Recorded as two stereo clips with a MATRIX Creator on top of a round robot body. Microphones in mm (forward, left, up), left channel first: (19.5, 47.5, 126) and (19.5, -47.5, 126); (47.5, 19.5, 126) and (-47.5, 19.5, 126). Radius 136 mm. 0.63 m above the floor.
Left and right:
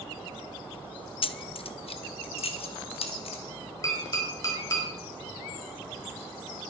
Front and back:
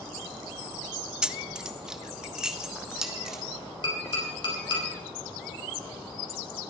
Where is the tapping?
35° left, 5 m.